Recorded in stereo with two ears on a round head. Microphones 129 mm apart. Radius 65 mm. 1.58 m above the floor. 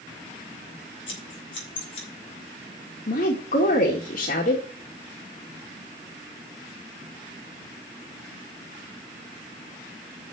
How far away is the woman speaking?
About 2 m.